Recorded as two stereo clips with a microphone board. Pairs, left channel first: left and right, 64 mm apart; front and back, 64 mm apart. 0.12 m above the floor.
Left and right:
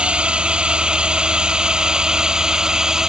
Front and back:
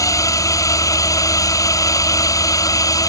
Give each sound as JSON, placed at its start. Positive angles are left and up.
{"t": 0.0, "sound": "a drone", "azimuth_deg": -20}